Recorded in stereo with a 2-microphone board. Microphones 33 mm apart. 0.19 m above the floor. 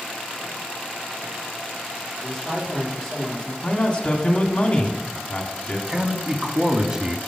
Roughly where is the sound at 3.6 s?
Left.